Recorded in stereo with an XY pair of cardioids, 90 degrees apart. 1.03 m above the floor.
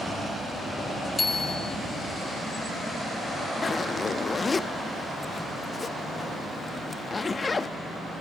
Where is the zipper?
35° left, 0.8 m.